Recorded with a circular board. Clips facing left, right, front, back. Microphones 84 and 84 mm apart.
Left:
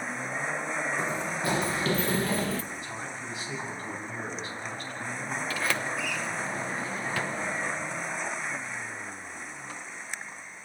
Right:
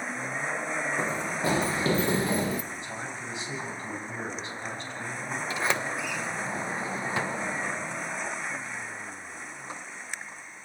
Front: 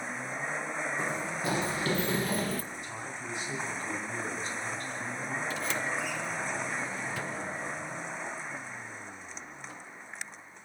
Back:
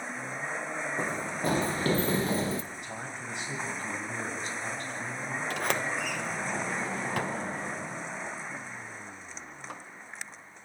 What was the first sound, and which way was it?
Running footsteps, 145° right.